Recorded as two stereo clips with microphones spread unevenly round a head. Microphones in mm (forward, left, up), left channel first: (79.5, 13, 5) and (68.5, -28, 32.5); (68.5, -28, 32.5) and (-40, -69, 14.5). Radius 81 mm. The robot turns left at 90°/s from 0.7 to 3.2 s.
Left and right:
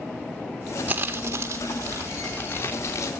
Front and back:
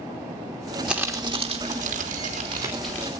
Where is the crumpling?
70° right, 3 m; by 3.1 s 90° left, 3 m.